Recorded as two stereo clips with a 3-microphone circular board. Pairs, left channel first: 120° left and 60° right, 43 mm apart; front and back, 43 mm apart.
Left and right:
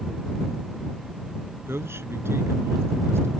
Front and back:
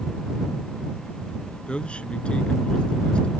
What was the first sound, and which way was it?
A man speaking, 65° right.